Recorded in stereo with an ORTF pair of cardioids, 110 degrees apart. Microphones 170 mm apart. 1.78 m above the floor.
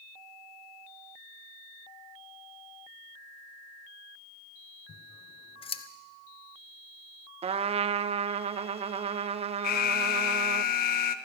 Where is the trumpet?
35° right, 0.8 m.